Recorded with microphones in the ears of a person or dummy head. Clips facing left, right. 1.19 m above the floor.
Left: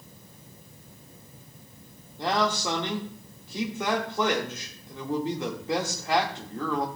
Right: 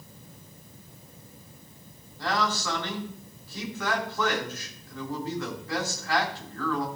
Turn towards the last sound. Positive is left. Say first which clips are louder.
# left 3 dB
turn(degrees=25)  # may be behind; listen again after turning